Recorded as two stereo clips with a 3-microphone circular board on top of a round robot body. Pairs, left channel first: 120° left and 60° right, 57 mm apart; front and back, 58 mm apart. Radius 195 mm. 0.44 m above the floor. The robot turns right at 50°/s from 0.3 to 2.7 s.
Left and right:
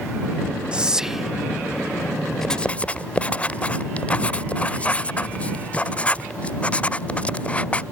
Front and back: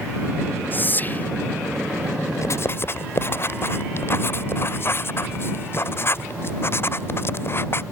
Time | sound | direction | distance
0.7 | whispering | 5° right | ?
2.4 | writing | 35° left | ?